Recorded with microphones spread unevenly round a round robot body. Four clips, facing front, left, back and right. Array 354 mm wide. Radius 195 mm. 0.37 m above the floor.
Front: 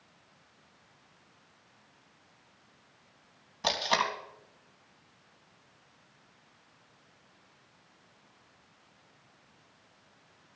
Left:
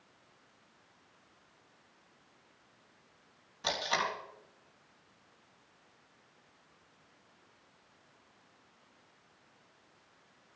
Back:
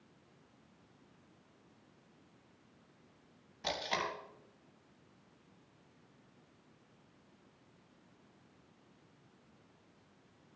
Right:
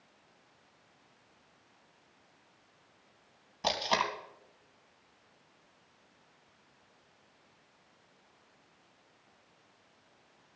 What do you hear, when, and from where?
3.6 s tape being pulled: 45° right, 4 m